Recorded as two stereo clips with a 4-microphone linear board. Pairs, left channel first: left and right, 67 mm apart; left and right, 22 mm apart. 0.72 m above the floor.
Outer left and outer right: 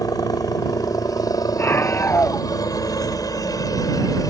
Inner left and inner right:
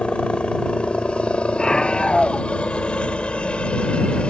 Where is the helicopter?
65° left (ahead or behind).